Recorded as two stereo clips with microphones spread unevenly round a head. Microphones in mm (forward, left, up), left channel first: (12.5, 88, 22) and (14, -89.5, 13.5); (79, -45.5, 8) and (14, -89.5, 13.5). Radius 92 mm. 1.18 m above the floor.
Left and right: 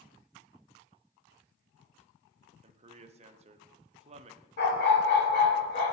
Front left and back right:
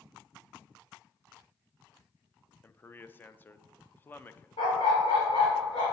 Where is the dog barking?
60° left, 1.7 m.